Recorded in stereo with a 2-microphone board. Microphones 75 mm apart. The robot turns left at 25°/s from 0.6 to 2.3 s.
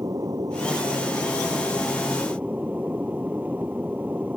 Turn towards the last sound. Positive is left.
turn(degrees=-155)